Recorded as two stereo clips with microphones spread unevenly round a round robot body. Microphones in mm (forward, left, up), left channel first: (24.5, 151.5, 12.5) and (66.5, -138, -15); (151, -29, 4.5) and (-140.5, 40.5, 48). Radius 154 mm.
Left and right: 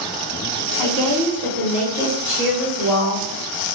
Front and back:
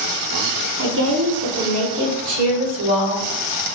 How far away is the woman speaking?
About 1.0 m.